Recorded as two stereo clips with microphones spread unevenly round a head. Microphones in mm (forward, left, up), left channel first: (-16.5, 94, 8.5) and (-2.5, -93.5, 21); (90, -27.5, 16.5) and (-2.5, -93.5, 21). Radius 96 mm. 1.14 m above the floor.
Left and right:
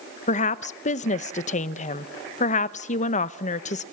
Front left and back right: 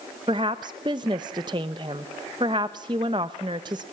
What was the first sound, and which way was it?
A woman speaking, 150° left.